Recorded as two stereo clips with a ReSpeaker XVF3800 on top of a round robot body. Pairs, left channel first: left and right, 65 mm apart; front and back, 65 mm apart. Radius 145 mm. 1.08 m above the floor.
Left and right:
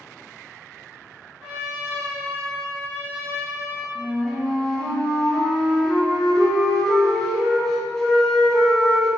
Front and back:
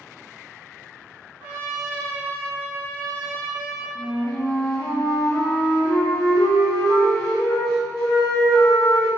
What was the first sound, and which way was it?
A trumpet, 165° right.